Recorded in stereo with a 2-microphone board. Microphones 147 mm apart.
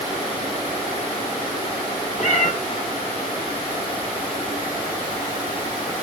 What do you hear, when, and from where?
2.2 s a cat meowing: 55° left (ahead or behind), 1.0 m